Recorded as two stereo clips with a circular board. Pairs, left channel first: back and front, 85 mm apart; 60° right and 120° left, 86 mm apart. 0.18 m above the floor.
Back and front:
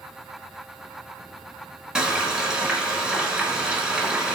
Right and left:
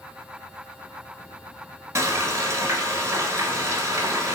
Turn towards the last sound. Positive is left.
turn(degrees=80)